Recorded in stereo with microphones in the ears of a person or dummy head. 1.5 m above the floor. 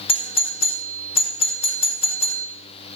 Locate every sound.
0.1 s a doorbell: 25° left (ahead or behind), 1.1 m